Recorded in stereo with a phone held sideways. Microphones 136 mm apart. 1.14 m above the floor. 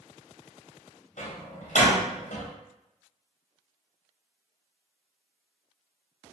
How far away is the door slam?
About 0.6 m.